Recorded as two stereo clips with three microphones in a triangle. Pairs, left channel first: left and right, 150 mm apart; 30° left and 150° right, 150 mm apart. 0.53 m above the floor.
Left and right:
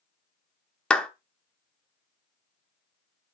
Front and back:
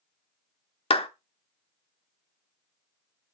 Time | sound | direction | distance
0.9 | a clap | 10° left | 0.9 m